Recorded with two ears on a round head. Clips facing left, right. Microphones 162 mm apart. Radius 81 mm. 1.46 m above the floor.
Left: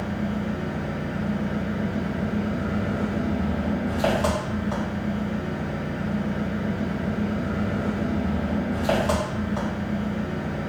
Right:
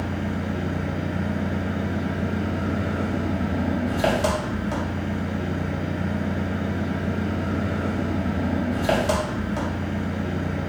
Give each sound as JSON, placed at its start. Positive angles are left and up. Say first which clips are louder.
{"t": 0.0, "sound": "an engine running", "louder": "even", "side_deg": -20, "distance_m": 1.0}